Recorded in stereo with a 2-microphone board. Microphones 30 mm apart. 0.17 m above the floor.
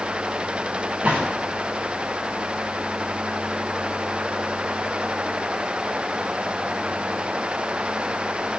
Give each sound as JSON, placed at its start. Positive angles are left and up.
{"t": 1.0, "sound": "a gunshot", "side_deg": -50, "distance_m": 8.5}